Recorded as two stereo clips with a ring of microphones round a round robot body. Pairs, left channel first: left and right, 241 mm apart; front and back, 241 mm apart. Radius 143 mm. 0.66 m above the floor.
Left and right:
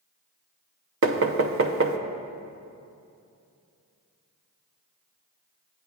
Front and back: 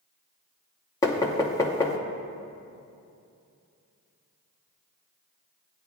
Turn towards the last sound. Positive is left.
turn(degrees=-75)